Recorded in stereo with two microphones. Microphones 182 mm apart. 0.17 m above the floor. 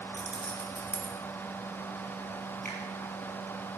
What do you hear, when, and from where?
0.1 s keys jangling: 5° right (ahead or behind), 3 m
2.6 s a finger snap: 60° left (ahead or behind), 4 m